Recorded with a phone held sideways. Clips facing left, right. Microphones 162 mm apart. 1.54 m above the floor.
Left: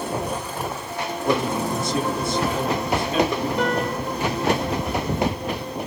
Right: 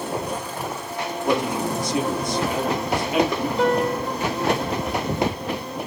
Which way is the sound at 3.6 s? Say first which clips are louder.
Right 3 dB; 75° left (ahead or behind).